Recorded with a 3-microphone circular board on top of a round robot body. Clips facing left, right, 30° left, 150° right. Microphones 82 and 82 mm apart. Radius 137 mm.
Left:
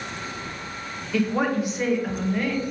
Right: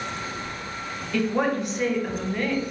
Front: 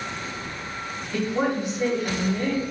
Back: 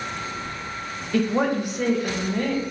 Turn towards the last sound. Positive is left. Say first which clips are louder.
# left 1 dB, back 3 dB
turn(degrees=175)